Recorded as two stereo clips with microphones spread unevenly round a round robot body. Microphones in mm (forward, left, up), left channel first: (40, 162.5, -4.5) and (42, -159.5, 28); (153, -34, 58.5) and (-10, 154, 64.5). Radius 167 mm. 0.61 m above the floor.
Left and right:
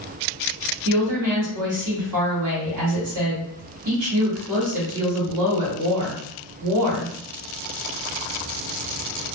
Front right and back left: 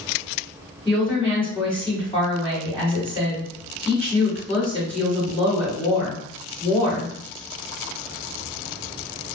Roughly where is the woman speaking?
Behind right.